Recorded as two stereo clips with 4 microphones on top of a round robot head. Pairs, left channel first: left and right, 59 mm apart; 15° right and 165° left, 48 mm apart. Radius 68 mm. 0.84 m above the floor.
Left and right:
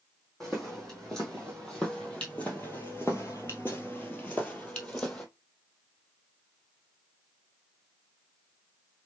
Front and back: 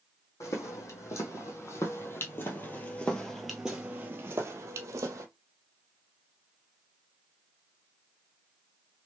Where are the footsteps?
5° left, 2.0 m; by 5.2 s 160° left, 1.3 m.